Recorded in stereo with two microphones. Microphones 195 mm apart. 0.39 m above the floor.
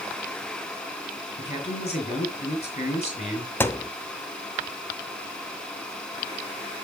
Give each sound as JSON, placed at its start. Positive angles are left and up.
{"t": 1.4, "sound": "a man speaking", "side_deg": 35, "distance_m": 5.0}
{"t": 3.6, "sound": "a thud", "side_deg": 10, "distance_m": 0.7}